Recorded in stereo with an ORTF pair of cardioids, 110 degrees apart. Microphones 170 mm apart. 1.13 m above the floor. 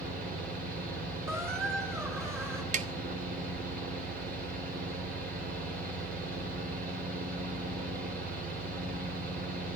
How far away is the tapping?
About 0.9 m.